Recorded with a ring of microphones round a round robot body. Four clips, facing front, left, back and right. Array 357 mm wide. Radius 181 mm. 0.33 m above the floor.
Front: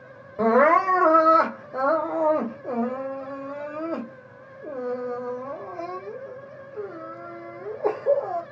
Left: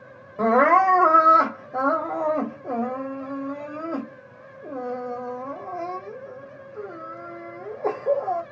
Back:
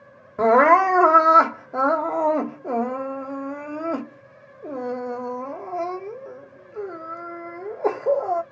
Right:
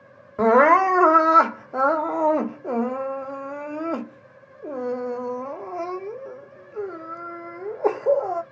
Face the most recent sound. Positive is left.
turn(degrees=-130)